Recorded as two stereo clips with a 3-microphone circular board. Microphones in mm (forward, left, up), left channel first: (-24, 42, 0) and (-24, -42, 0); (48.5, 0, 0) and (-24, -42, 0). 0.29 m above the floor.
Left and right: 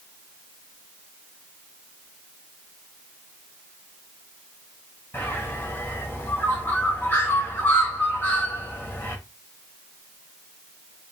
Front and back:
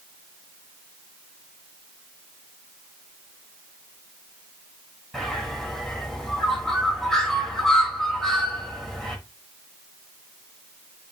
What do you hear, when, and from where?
5.1 s a bird: 110° left, 1.3 m